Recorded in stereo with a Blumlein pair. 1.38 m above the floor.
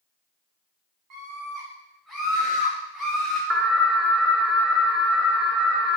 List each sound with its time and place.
1.1 s a scream: 35° right, 1.0 m; by 3.4 s 15° left, 1.7 m
3.5 s an alarm: 10° right, 0.6 m